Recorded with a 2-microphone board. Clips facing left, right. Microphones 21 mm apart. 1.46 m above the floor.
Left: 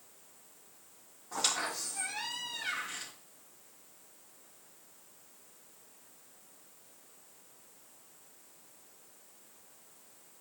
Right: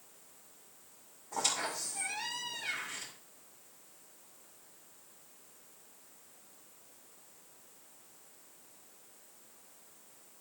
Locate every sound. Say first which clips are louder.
1.3 s a squeak: left 1 dB; 50° left (ahead or behind), 3.5 m